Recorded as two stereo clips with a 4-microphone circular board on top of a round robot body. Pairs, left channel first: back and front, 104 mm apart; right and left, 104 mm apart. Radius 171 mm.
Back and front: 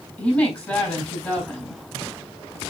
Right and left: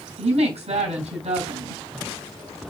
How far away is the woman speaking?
About 4.5 m.